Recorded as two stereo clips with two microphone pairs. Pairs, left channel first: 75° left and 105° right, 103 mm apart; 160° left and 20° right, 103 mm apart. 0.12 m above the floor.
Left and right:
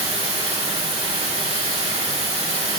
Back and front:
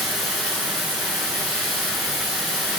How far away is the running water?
About 5 m.